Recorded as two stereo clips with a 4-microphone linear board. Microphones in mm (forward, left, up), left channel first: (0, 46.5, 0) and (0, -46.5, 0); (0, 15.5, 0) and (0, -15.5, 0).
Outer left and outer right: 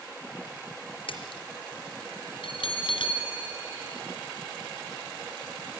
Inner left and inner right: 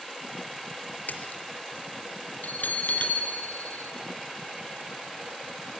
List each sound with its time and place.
1.1 s a splash: 75° left (ahead or behind), 4 m
2.4 s a bell: 70° left (ahead or behind), 4 m